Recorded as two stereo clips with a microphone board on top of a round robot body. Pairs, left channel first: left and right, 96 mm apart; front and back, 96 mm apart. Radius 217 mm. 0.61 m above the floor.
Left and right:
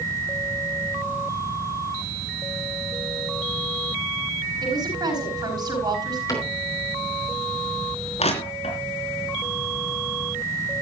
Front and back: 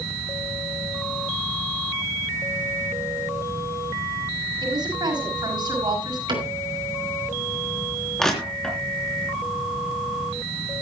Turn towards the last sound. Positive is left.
turn(degrees=85)